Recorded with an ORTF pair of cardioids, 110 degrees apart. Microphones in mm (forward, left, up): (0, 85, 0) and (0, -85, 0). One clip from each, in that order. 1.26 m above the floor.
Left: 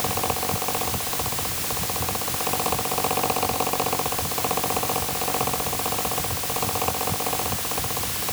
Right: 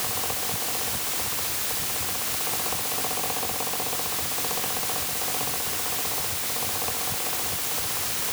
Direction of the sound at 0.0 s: 50° left.